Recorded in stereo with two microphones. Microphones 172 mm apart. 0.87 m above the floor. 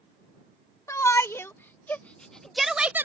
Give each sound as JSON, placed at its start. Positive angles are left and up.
{"t": 0.9, "sound": "a shout", "side_deg": 15}